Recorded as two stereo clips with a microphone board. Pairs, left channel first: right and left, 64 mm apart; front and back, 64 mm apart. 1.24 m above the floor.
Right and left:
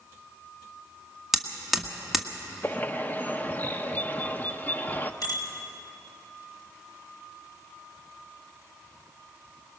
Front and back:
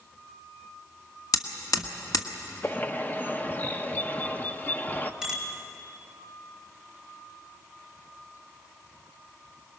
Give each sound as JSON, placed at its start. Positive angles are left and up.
{"t": 1.3, "sound": "hammering", "azimuth_deg": 5, "distance_m": 1.4}
{"t": 2.6, "sound": "a bird", "azimuth_deg": -45, "distance_m": 0.7}
{"t": 5.2, "sound": "a bicycle bell", "azimuth_deg": -100, "distance_m": 5.0}